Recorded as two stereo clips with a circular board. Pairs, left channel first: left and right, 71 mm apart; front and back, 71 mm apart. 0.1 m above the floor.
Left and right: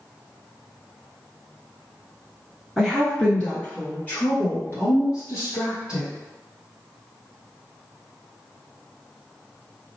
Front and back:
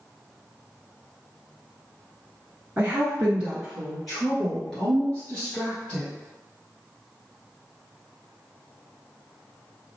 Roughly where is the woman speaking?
Behind.